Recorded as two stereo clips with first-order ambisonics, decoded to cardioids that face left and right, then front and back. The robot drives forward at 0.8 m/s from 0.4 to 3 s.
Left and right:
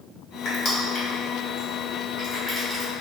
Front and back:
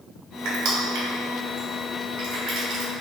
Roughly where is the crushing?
Behind left.